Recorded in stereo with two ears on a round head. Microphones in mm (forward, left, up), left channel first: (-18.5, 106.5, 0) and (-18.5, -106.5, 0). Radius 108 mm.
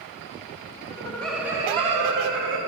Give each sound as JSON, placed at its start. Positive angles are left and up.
{"t": 0.9, "sound": "laughter", "side_deg": 20, "distance_m": 1.0}